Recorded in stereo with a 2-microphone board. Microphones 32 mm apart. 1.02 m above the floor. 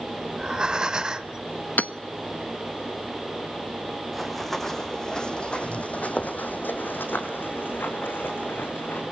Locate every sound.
0.3 s breathing: 25° right (ahead or behind), 1.0 m
1.8 s hammering: 60° left (ahead or behind), 1.0 m
4.1 s running footsteps: centre (ahead or behind), 4 m; by 9.0 s 75° left (ahead or behind), 5.5 m